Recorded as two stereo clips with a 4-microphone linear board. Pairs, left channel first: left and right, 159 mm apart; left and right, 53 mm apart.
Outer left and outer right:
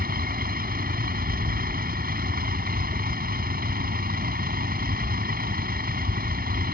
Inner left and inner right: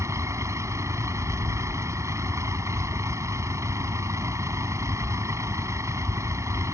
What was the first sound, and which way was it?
A vehicle, 75° right (ahead or behind).